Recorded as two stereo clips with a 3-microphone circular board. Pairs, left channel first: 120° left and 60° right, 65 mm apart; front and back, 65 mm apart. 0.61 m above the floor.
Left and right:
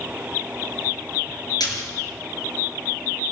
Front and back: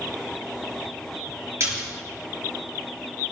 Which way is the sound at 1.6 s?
130° left.